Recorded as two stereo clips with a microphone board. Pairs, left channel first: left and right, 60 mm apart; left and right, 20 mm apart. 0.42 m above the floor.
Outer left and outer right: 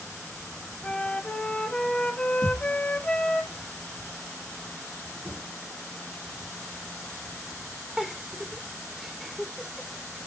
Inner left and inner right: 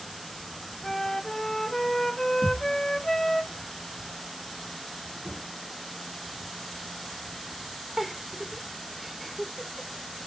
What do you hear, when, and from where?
0.8 s a flute: 20° left (ahead or behind), 0.5 m
2.4 s a thud: 75° right (ahead or behind), 2.5 m
5.2 s knocking: 45° right (ahead or behind), 3.5 m
8.0 s a giggle: centre (ahead or behind), 0.7 m